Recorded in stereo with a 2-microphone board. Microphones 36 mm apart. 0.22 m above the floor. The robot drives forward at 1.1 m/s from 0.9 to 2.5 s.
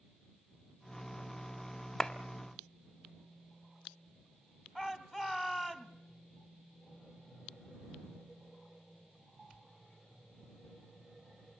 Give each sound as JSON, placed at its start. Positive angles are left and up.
{"t": 2.0, "sound": "a clap", "side_deg": 10, "distance_m": 1.0}
{"t": 4.8, "sound": "a shout", "side_deg": -10, "distance_m": 1.5}